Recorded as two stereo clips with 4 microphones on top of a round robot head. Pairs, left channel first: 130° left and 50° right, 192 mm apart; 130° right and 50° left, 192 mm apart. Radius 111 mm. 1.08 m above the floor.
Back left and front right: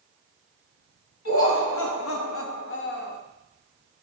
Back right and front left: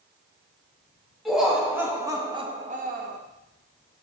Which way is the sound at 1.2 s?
140° left.